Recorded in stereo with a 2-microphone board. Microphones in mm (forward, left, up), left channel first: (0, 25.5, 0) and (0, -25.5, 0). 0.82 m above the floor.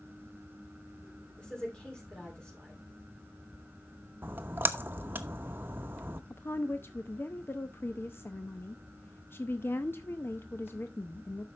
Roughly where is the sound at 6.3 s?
Left.